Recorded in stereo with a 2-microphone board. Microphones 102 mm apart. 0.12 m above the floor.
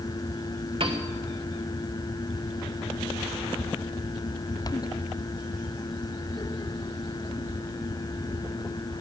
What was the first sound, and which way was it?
A piano, 60° right (ahead or behind).